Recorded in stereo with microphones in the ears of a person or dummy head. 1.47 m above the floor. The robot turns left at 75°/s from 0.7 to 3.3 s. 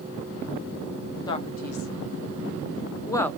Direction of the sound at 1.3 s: 20° left (ahead or behind).